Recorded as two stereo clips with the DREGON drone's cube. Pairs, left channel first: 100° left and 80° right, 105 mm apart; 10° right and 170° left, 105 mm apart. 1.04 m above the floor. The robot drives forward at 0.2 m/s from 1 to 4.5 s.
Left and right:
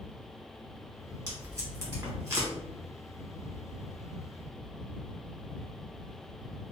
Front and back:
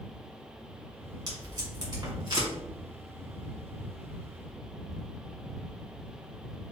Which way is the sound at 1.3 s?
140° right.